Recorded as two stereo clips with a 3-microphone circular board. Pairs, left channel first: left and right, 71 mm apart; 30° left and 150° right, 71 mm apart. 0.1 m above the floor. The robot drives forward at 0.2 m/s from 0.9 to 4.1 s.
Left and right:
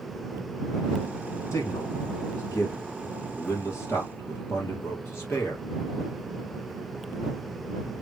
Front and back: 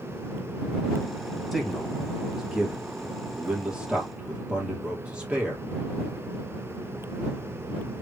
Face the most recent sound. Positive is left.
turn(degrees=135)